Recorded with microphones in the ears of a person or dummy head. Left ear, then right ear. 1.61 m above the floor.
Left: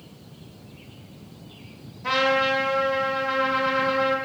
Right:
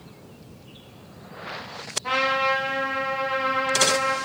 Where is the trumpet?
10° left (ahead or behind), 0.7 m.